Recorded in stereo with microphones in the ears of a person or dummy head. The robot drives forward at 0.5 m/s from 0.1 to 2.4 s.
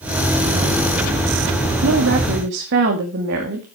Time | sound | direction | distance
1.8 | a woman speaking | 60° right (ahead or behind) | 2 m